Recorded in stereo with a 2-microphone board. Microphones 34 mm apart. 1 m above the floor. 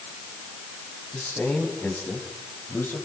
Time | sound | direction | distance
1.1 | a man speaking | 55° left (ahead or behind) | 7.5 m